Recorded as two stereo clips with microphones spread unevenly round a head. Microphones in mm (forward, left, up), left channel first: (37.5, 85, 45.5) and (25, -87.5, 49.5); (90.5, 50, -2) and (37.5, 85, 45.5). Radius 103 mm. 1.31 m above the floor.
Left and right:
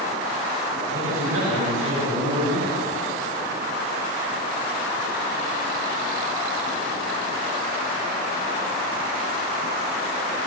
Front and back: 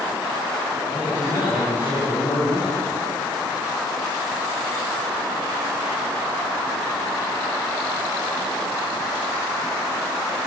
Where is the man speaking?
105° right, 7.5 m.